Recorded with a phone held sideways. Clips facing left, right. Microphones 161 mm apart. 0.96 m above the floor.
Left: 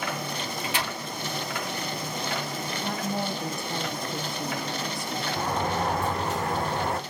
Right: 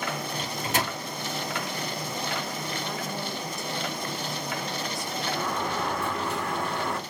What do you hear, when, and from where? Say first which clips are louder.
0.4 s a microwave: right 2 dB; 45° right (ahead or behind), 0.6 m
2.8 s a woman speaking: left 3 dB; 55° left (ahead or behind), 1.1 m
5.4 s a sliding door: left 4 dB; 40° left (ahead or behind), 1.0 m